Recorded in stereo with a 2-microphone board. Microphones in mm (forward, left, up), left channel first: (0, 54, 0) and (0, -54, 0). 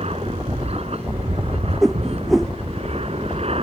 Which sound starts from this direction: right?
An aircraft, at 0.0 s.